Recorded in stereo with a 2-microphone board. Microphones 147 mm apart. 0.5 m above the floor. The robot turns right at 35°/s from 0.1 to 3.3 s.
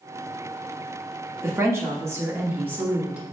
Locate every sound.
1.4 s a woman speaking: 20° right (ahead or behind), 0.9 m; by 3.2 s 10° right (ahead or behind), 0.9 m